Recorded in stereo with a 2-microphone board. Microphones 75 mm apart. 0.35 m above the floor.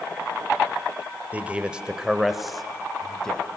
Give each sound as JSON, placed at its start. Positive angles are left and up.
{"t": 1.3, "sound": "a man speaking", "side_deg": -20, "distance_m": 1.3}